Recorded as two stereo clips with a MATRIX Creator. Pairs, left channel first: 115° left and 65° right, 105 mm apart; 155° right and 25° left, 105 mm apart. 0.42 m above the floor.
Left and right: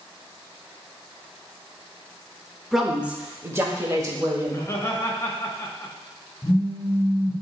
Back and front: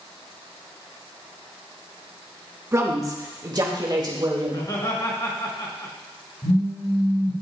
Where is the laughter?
170° left, 1.9 m.